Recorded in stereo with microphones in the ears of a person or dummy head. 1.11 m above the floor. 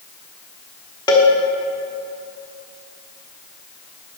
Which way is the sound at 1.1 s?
20° left (ahead or behind).